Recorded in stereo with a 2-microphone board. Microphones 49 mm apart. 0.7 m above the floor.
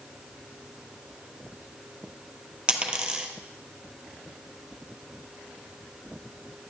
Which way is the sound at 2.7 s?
20° right (ahead or behind).